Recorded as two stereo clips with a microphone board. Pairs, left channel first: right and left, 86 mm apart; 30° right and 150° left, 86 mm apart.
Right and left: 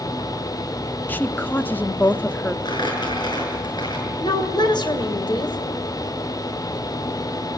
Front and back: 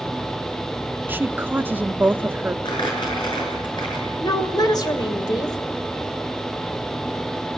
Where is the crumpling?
60° right, 7 m.